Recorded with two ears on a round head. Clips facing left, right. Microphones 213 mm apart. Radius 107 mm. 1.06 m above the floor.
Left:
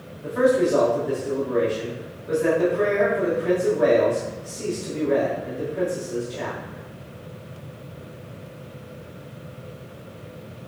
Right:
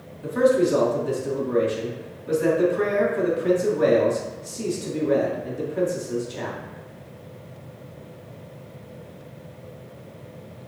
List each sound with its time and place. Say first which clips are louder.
0.2 s a man speaking: even; 50° right (ahead or behind), 2.5 m